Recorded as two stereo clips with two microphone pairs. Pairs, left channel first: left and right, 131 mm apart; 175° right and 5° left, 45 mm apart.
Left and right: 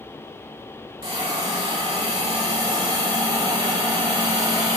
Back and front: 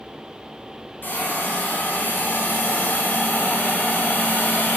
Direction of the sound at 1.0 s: 140° right.